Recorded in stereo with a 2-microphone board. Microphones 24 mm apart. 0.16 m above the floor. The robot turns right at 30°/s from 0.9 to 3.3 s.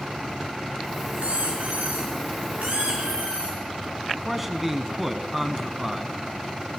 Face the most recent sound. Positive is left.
turn(degrees=-5)  # may be behind; listen again after turning